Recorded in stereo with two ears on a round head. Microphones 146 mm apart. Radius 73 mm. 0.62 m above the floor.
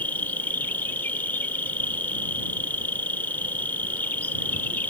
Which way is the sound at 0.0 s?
10° left (ahead or behind).